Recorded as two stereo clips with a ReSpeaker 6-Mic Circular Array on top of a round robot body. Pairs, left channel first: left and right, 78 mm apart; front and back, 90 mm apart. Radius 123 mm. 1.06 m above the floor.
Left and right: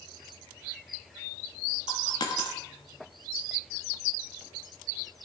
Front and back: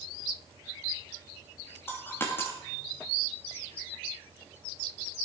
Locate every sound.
1.9 s a dropped coin: 65° left, 0.6 m